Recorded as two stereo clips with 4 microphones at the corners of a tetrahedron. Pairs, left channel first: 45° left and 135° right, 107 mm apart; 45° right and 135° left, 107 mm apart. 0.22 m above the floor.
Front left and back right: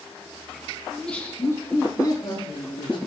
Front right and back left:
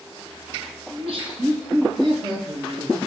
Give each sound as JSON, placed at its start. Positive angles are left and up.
{"t": 0.9, "sound": "laughter", "azimuth_deg": 130, "distance_m": 2.0}